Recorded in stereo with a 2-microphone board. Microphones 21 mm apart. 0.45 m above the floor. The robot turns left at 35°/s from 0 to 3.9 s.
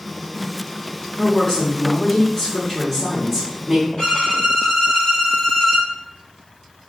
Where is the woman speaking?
95° left, 1.3 m; by 3.9 s straight ahead, 1.3 m.